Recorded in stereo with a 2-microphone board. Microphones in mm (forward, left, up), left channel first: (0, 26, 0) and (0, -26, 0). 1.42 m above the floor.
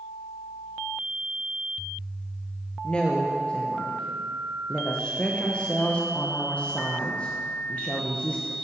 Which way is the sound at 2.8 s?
25° left (ahead or behind).